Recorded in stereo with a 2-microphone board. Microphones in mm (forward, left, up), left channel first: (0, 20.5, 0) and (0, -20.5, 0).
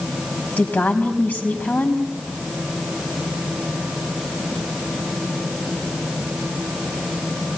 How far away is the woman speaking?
About 4 m.